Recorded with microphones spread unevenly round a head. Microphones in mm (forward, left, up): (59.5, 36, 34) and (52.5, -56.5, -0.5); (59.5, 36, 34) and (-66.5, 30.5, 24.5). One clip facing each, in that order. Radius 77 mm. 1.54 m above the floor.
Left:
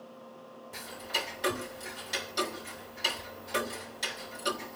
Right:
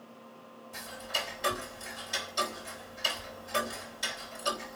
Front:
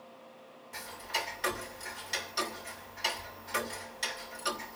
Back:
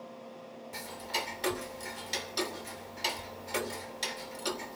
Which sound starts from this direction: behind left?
Ticking, at 0.7 s.